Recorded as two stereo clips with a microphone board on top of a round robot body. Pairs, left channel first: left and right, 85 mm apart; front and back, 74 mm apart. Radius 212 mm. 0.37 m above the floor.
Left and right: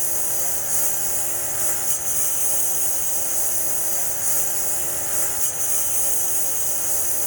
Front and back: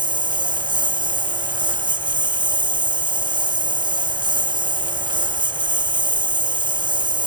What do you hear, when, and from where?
0.0 s a lawn mower: straight behind